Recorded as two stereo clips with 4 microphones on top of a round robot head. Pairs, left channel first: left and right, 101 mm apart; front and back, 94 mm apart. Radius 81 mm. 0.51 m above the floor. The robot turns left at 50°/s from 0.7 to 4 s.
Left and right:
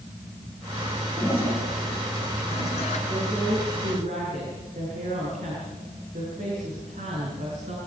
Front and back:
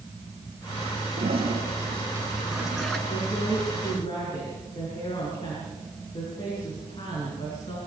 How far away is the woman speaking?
About 7.5 m.